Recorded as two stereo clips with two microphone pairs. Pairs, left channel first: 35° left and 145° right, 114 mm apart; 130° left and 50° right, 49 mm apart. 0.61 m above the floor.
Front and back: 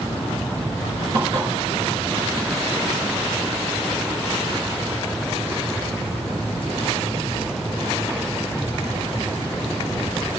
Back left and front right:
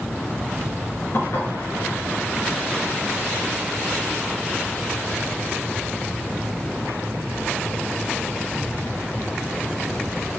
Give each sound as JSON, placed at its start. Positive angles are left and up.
{"t": 1.1, "sound": "dishes clattering", "azimuth_deg": 165, "distance_m": 5.5}